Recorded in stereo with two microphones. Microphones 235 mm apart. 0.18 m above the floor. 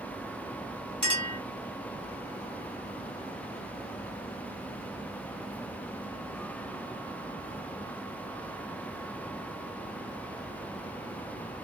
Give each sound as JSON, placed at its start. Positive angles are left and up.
{"t": 1.0, "sound": "a clink", "side_deg": -20, "distance_m": 1.8}